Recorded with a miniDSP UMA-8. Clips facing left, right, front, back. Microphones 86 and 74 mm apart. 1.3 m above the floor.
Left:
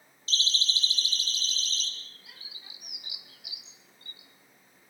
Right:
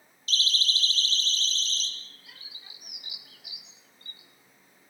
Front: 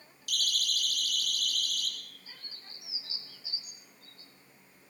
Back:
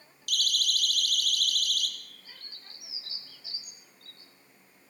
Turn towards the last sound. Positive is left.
turn(degrees=160)